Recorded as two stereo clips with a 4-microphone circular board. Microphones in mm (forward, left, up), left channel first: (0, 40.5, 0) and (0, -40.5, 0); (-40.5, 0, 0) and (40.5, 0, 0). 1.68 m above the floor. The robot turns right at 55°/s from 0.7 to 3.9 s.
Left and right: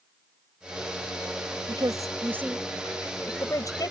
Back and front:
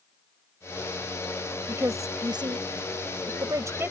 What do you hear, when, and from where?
1.7 s a woman speaking: 60° right; by 3.9 s 60° left